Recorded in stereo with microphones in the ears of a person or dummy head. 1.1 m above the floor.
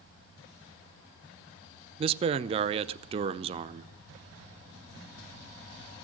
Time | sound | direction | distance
2.0 | a man speaking | 30° right (ahead or behind) | 0.5 m